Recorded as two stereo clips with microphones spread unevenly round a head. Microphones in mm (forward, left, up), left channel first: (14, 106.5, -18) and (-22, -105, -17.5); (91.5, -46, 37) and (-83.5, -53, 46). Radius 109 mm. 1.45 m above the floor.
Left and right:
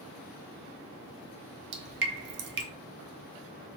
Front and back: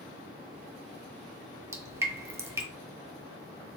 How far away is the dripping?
About 1.4 m.